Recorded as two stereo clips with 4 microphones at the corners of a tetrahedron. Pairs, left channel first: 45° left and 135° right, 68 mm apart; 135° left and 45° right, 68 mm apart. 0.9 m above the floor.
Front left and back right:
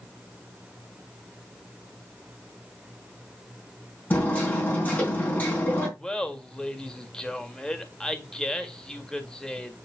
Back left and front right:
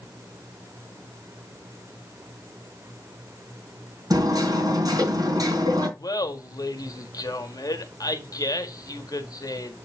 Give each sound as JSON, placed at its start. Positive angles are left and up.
{"t": 4.1, "sound": "hammering", "azimuth_deg": -20, "distance_m": 3.0}
{"t": 6.0, "sound": "laughter", "azimuth_deg": 125, "distance_m": 1.7}